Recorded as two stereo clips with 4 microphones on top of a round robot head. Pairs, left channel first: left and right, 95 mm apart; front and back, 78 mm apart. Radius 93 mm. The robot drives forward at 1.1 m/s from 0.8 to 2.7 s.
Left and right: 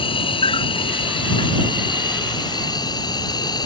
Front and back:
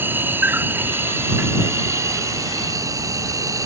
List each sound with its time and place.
0.0 s an insect: 115° left; by 3.7 s 135° left